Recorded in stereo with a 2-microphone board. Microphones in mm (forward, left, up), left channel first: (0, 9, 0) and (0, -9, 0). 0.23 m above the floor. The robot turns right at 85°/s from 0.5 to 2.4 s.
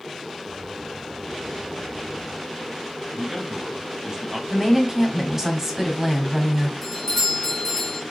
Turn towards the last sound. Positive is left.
turn(degrees=20)  # may be behind; listen again after turning